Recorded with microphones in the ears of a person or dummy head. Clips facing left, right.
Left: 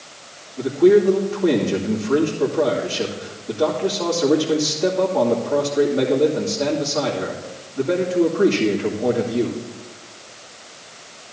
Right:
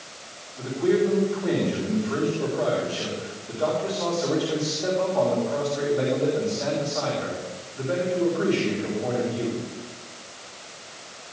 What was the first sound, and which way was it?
A man speaking, 60° left (ahead or behind).